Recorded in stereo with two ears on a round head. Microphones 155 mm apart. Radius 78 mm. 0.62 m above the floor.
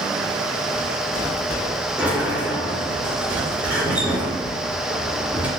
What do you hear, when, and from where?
2.0 s a sliding door: 10° right (ahead or behind), 3.5 m